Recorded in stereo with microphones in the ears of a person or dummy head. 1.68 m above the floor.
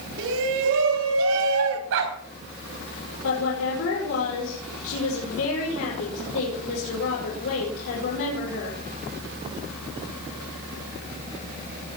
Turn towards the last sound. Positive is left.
turn(degrees=80)